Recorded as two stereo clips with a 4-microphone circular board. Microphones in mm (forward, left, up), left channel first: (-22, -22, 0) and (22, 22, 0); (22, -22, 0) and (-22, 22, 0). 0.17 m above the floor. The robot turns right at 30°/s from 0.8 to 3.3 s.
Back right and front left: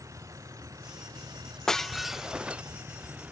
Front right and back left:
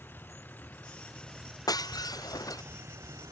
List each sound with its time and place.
0.0 s a vehicle: 10° left; by 3.3 s 110° left
1.7 s breaking glass: 55° right; by 2.6 s 25° right